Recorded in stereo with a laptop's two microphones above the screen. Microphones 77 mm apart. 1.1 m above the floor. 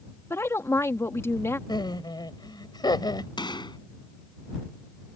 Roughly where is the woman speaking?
Left.